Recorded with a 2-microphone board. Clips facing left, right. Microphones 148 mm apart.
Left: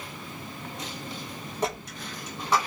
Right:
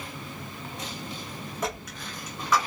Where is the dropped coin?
30° left (ahead or behind), 1.3 m.